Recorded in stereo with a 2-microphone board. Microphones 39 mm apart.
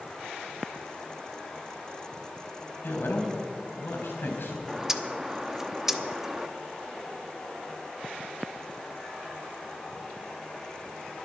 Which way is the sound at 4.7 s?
10° right (ahead or behind).